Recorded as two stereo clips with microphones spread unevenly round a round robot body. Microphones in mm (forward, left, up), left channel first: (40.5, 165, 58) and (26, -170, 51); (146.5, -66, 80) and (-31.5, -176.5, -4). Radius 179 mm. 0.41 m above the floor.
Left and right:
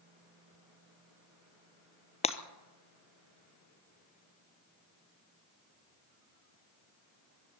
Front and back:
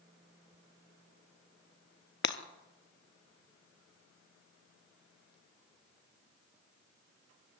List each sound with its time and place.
2.2 s breaking glass: 15° left, 1.1 m